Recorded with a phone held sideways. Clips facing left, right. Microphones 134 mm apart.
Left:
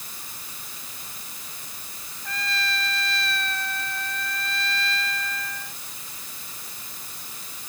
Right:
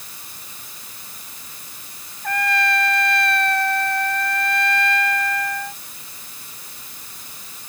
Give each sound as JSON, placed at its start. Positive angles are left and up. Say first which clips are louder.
{"t": 2.2, "sound": "a trumpet", "louder": "right 10 dB", "side_deg": -60}